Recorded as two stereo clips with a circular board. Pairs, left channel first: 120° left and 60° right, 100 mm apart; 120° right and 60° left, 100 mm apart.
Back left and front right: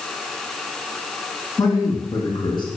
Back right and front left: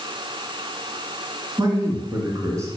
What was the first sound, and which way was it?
A man speaking, 90° left.